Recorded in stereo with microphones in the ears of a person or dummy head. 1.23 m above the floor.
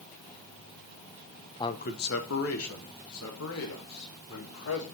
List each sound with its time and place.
1.6 s a man speaking: 20° left (ahead or behind), 0.6 m; by 4.8 s 75° left (ahead or behind), 3.5 m